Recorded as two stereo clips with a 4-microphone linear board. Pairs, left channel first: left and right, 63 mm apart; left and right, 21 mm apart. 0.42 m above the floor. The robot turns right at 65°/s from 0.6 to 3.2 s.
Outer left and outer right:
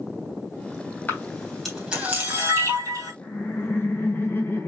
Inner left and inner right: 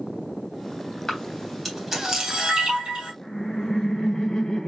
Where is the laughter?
40° left (ahead or behind), 1.6 m.